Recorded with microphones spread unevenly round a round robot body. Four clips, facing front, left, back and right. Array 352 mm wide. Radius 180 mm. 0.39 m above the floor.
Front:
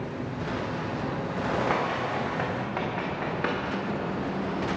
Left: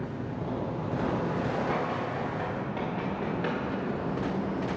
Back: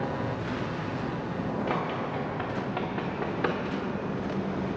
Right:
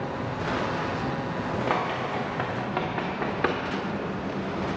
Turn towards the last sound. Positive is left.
turn(degrees=-90)